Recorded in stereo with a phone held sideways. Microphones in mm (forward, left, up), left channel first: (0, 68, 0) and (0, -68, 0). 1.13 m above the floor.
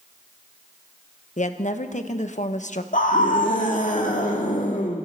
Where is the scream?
70° left (ahead or behind), 1.9 m.